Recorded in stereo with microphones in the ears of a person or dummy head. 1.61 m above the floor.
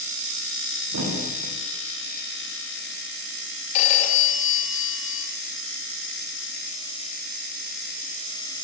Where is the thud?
70° right (ahead or behind), 8.5 m.